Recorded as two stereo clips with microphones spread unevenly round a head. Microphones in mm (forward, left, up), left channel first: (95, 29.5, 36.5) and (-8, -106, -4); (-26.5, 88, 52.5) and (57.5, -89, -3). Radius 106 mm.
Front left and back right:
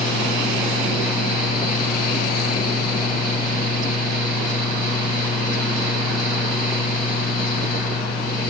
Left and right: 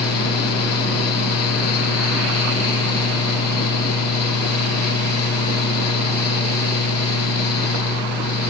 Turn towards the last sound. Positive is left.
turn(degrees=105)